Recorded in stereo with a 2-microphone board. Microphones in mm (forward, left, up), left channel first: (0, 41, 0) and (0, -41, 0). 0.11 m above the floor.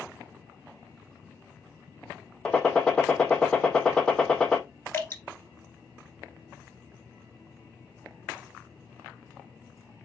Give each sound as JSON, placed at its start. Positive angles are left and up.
{"t": 2.5, "sound": "a gunshot", "side_deg": 10, "distance_m": 0.8}
{"t": 4.9, "sound": "dripping", "side_deg": 25, "distance_m": 2.0}